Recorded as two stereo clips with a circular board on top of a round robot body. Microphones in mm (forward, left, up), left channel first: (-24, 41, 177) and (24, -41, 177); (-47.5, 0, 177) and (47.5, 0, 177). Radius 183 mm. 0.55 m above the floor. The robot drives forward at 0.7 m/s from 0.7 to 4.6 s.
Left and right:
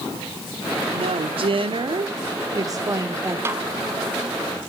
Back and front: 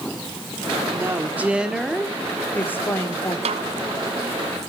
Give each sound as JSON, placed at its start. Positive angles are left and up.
{"t": 0.9, "sound": "a woman speaking", "azimuth_deg": -65, "distance_m": 1.7}
{"t": 3.5, "sound": "a snare drum", "azimuth_deg": 5, "distance_m": 0.7}